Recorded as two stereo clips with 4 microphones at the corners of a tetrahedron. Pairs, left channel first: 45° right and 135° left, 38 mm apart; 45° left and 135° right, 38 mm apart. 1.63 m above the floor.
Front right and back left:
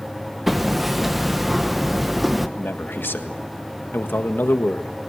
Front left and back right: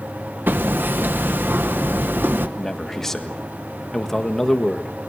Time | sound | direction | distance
0.5 | hammering | 140° right | 1.0 m
2.6 | a man speaking | 35° right | 1.6 m